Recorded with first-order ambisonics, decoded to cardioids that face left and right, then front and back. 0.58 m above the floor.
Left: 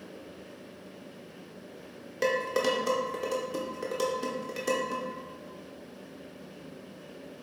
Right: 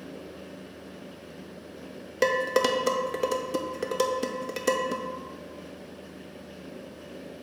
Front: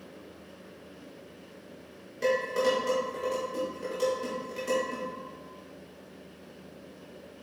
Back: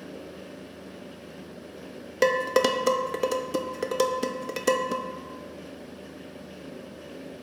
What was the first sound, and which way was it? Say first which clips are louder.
Dishes clattering: right 4 dB, back 4 dB; 155° right.